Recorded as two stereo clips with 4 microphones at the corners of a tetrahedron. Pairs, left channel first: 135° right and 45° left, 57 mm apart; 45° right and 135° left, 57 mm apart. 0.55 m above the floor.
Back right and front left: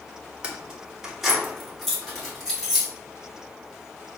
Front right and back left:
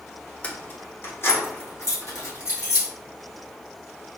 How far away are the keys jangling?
About 0.6 m.